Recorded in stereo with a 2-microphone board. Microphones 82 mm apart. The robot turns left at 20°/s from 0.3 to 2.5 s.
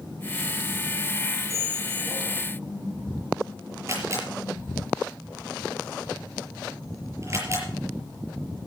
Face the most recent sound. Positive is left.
turn(degrees=-35)  # may be behind; listen again after turning